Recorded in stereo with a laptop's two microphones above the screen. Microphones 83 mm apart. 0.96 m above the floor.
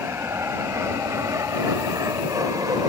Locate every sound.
0.0 s an aircraft: 30° right (ahead or behind); by 2.9 s 45° right (ahead or behind)